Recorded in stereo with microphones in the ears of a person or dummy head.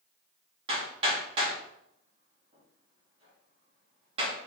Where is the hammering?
30° right (ahead or behind), 2 m.